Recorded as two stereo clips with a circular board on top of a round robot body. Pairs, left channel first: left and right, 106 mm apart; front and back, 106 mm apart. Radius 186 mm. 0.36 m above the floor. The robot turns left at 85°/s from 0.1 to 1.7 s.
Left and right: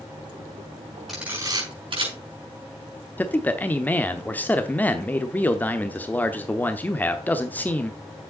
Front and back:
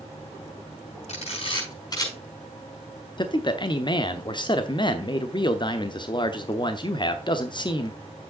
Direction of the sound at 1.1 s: Straight ahead.